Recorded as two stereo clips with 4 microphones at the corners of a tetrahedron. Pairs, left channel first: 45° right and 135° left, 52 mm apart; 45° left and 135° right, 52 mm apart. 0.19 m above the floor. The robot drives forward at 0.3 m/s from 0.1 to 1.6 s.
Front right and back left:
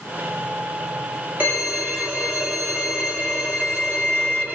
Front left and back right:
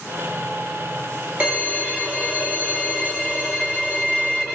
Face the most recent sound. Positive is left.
turn(degrees=170)